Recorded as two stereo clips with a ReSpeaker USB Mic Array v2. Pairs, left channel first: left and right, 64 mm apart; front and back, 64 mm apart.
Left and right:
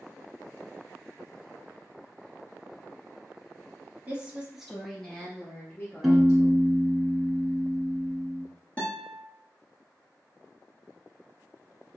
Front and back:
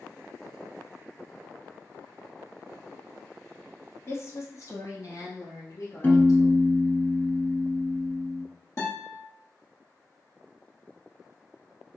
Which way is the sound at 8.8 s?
25° left.